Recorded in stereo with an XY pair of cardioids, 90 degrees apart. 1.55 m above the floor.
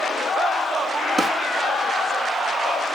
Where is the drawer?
40° right, 2.5 m.